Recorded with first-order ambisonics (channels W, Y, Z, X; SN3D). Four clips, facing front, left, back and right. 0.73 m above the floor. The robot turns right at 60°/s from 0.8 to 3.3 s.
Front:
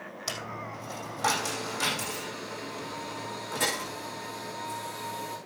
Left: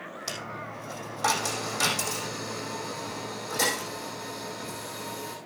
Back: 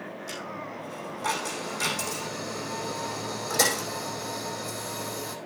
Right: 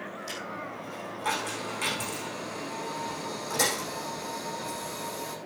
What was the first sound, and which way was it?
A dropped coin, 30° left.